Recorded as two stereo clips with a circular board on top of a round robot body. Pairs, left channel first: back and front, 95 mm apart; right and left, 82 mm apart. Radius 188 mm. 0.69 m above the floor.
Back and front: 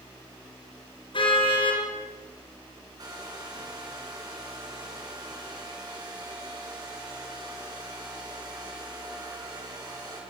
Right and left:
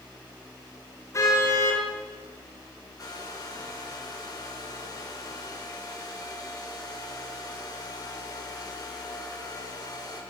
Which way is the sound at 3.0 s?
50° right.